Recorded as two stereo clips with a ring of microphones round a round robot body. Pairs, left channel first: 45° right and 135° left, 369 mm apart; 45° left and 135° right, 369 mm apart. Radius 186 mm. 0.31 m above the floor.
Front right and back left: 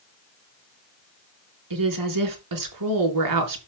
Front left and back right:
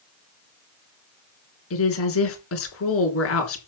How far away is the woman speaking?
About 3.5 m.